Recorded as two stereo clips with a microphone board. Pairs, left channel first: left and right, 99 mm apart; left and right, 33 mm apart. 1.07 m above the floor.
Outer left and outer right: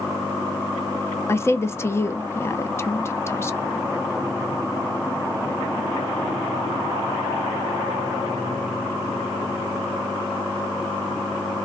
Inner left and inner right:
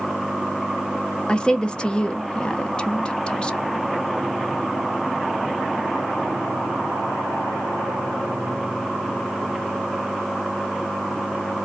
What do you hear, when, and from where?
1.3 s a woman speaking: 25° left (ahead or behind), 0.6 m